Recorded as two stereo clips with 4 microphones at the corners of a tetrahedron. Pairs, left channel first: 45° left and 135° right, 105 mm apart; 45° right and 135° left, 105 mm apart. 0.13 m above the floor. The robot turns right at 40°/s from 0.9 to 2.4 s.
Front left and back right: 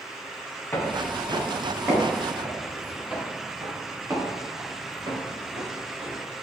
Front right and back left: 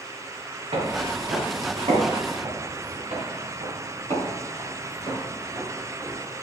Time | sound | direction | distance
0.7 | footsteps | 110° left | 2 m
3.1 | footsteps | 145° left | 2.5 m